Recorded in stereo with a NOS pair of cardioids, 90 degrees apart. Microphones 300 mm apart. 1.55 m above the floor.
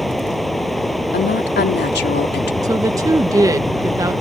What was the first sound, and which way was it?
Running water, straight ahead.